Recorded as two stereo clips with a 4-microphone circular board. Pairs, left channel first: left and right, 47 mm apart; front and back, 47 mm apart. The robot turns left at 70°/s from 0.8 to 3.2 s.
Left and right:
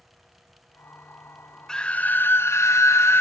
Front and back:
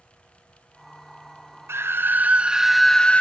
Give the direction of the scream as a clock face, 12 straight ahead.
6 o'clock.